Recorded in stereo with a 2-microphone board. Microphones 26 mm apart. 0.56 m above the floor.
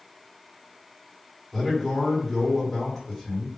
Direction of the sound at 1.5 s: 10° left (ahead or behind).